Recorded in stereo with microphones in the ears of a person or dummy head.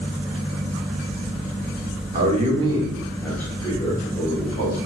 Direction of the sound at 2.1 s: 40° right (ahead or behind).